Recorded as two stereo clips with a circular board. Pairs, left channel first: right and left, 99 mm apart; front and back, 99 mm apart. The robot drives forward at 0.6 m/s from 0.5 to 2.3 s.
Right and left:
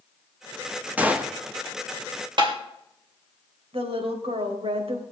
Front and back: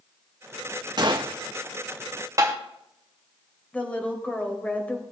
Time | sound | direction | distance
1.0 | a gunshot | 160° left | 1.0 m
2.4 | tapping | 125° left | 2.5 m
3.7 | a woman speaking | 75° left | 3 m